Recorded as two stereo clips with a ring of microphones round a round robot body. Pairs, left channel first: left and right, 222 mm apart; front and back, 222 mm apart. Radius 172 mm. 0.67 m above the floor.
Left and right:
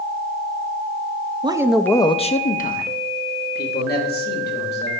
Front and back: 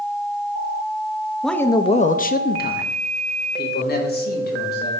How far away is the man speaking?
About 0.8 m.